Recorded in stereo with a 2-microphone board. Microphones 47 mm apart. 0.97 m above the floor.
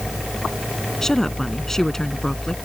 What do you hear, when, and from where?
1.0 s a woman speaking: 10° left (ahead or behind)